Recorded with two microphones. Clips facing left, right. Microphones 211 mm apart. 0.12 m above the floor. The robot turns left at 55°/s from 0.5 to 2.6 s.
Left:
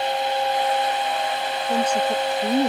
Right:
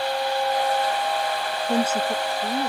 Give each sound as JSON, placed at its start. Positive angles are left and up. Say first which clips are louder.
{"t": 1.7, "sound": "a woman speaking", "louder": "left 1 dB", "azimuth_deg": -160}